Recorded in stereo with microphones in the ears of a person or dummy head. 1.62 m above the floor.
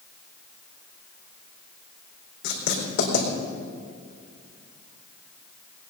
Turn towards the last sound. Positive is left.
turn(degrees=65)  # may be behind; listen again after turning